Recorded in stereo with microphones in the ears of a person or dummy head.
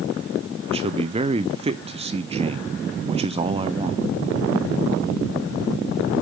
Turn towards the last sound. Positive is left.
turn(degrees=-30)  # may be behind; listen again after turning